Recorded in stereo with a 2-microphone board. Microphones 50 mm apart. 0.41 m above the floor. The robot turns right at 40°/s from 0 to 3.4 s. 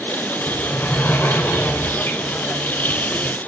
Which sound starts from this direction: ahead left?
A sliding door, at 0.5 s.